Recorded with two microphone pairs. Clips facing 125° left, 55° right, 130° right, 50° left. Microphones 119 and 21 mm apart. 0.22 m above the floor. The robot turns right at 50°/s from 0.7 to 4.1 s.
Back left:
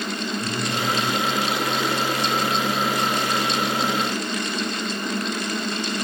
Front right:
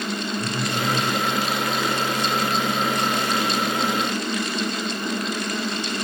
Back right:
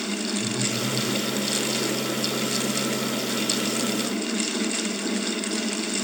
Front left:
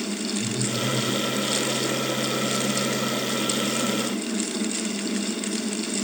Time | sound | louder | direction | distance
0.4 | a phone buzzing | even, even | 65° right | 9.5 m